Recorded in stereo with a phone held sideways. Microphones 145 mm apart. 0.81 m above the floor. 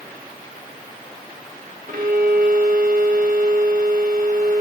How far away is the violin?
About 1.6 m.